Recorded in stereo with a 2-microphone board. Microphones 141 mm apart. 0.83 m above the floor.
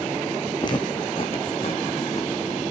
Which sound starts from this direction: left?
Footsteps, at 0.6 s.